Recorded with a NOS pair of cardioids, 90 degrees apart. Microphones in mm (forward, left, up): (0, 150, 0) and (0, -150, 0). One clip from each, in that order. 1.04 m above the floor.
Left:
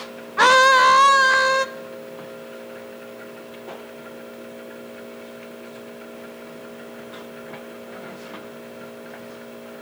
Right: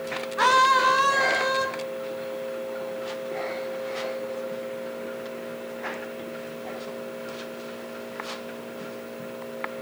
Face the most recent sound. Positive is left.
turn(degrees=60)